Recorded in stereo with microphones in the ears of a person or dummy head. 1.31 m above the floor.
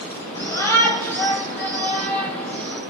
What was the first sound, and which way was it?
A shout, 15° left (ahead or behind).